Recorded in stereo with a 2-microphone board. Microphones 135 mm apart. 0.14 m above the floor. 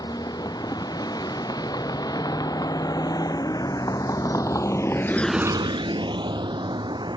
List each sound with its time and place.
0.0 s a vehicle: 30° left (ahead or behind); by 7.2 s 35° right (ahead or behind)